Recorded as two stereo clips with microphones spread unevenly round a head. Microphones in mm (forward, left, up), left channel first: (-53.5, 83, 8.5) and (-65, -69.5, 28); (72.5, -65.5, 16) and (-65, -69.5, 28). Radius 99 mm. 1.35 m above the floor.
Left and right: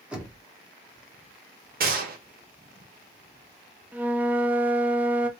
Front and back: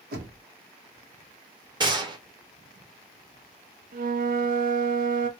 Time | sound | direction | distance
0.1 | knocking | 175° right | 1.1 m
1.8 | a gunshot | 120° right | 1.0 m
3.9 | a flute | 170° right | 0.5 m